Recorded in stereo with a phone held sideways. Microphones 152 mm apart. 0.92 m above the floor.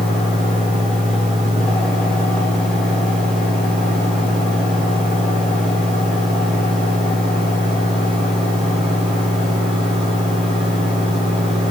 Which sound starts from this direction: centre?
A fan, at 0.0 s.